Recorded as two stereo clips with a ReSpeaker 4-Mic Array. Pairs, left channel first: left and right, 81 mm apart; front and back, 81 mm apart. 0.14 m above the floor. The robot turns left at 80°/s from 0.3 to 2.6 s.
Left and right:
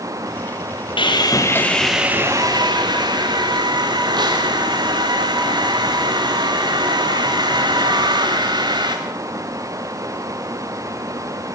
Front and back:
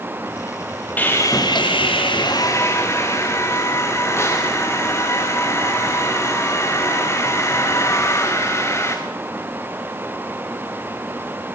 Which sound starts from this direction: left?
Sawing, at 1.0 s.